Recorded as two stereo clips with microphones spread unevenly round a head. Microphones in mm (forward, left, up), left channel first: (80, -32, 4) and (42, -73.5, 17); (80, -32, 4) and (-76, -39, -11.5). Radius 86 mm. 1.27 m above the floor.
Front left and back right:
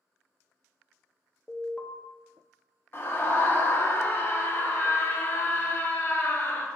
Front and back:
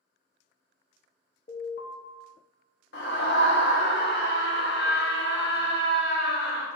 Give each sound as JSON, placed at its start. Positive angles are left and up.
{"t": 1.5, "sound": "an alarm", "azimuth_deg": -25, "distance_m": 0.8}
{"t": 2.9, "sound": "a scream", "azimuth_deg": 15, "distance_m": 0.8}